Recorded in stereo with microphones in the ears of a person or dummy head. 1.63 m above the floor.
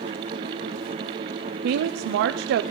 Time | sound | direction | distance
1.6 | a woman speaking | 60° right (ahead or behind) | 0.5 m